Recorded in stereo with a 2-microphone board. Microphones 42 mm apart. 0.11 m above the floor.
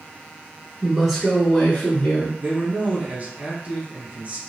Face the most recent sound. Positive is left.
turn(degrees=-40)  # may be behind; listen again after turning